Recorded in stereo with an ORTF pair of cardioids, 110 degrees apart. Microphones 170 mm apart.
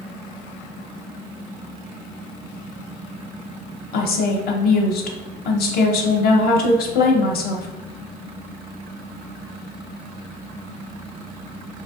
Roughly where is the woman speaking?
Ahead left.